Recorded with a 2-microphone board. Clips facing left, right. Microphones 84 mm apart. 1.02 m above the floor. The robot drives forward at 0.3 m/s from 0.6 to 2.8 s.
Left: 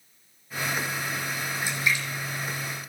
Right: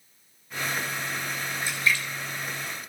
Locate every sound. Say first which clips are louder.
1.6 s a splash: right 1 dB; 15° left (ahead or behind), 3.5 m